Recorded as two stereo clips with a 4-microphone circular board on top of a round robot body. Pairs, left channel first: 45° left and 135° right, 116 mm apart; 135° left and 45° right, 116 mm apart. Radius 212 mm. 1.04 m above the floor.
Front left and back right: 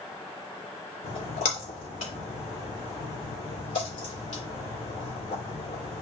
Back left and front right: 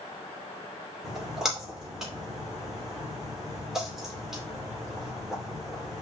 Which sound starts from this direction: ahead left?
A splash, at 1.0 s.